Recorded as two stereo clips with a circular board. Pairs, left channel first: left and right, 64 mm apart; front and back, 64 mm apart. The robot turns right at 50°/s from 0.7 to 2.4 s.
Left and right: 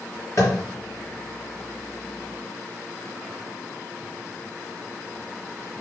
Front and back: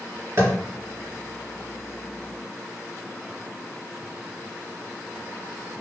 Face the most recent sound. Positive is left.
turn(degrees=-145)